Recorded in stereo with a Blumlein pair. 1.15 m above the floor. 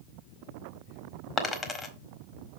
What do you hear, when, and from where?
1.4 s a dropped coin: 20° left, 1.4 m